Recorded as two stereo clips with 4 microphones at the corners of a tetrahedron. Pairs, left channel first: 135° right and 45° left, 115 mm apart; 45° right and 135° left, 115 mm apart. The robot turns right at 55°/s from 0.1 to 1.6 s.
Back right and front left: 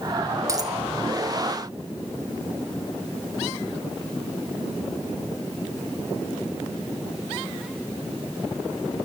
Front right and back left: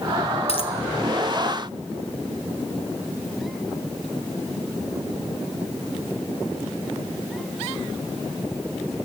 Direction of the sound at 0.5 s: 15° right.